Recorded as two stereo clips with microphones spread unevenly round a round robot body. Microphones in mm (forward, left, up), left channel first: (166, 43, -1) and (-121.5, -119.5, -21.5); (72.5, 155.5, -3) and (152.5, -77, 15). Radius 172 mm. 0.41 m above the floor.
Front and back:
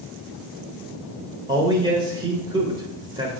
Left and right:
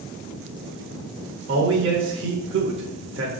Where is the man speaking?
85° right, 1.2 m.